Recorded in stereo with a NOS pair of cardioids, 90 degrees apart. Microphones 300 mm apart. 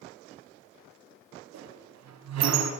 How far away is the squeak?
About 5 m.